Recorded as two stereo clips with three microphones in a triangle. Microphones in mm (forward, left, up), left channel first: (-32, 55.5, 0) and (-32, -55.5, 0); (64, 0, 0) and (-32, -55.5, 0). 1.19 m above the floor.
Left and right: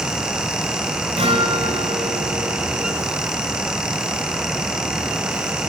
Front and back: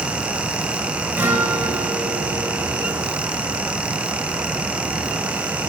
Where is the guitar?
80° right, 1.8 m.